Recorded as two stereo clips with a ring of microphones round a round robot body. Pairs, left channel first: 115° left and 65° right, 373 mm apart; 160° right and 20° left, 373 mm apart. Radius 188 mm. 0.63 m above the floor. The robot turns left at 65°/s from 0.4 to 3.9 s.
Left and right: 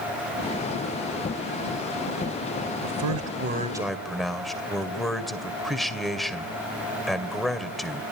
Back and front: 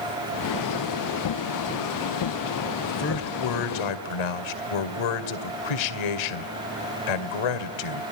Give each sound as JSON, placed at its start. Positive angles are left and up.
{"t": 2.8, "sound": "a man speaking", "azimuth_deg": -85, "distance_m": 2.0}